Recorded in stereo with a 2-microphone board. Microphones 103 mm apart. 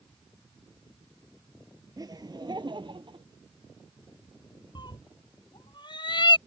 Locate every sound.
2.0 s laughter: 35° right (ahead or behind); by 3.3 s 50° right (ahead or behind)
4.8 s a cat meowing: 45° left (ahead or behind)